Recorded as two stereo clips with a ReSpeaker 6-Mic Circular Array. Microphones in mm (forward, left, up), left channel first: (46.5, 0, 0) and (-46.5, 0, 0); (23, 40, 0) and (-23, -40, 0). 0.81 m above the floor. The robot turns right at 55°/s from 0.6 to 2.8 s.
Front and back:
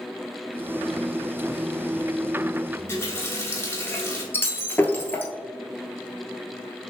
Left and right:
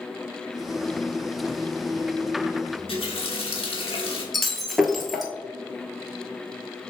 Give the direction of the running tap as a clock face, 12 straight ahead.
10 o'clock.